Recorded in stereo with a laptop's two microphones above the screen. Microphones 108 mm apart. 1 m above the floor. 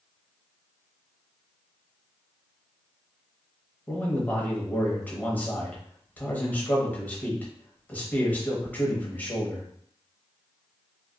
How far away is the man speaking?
About 0.9 m.